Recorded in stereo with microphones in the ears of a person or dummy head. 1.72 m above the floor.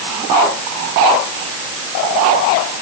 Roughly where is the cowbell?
No cowbell in this recording.